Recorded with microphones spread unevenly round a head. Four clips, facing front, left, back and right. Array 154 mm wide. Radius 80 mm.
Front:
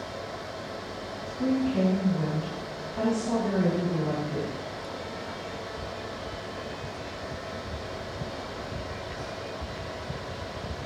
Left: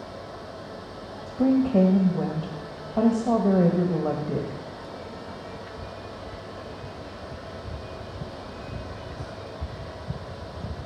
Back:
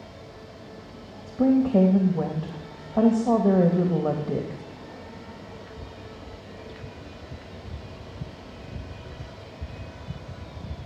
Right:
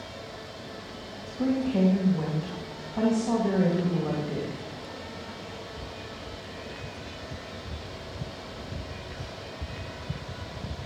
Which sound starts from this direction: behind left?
A woman speaking, at 1.3 s.